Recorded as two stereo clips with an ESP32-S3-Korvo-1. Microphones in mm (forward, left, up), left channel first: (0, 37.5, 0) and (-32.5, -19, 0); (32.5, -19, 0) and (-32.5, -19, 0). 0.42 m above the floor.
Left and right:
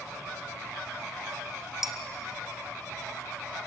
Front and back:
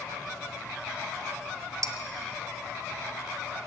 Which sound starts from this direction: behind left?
Dishes clattering, at 1.8 s.